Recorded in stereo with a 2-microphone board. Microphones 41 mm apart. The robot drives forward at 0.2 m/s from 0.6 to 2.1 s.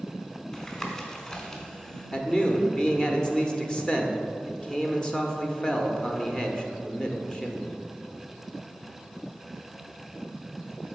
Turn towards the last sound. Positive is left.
turn(degrees=20)  # may be behind; listen again after turning